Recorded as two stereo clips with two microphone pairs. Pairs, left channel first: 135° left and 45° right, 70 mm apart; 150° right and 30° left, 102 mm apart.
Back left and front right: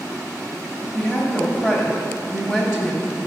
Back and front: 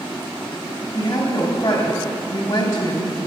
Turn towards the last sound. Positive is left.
turn(degrees=-150)